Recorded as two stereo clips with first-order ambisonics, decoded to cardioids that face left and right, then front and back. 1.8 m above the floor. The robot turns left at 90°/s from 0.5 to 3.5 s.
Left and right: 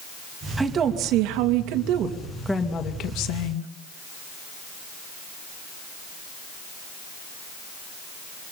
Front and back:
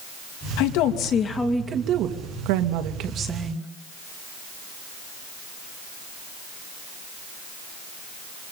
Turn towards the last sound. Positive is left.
turn(degrees=90)